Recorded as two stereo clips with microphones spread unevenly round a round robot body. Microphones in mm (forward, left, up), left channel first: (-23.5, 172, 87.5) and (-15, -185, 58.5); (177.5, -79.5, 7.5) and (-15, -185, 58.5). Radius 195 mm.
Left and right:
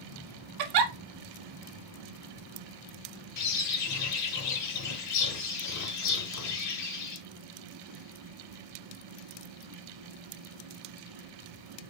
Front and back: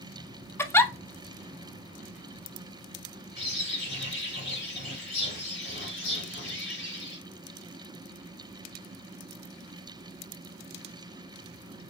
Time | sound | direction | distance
0.6 | a giggle | 55° right | 0.5 m
3.4 | a bird | 135° left | 1.0 m